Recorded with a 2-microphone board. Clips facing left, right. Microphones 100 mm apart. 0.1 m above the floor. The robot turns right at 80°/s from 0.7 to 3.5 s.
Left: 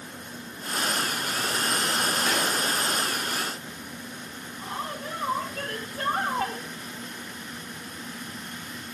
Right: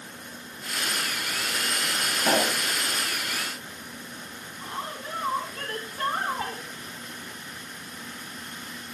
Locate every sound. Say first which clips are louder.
2.2 s a pop: right 2 dB; 95° right, 2.5 m; by 2.6 s 65° right, 2.5 m
4.6 s a woman speaking: left 1 dB; 75° left (ahead or behind), 9 m